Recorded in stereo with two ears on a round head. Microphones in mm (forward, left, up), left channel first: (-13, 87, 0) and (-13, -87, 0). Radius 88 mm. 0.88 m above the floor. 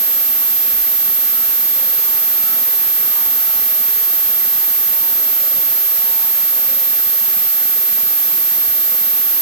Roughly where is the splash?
No splash in this recording.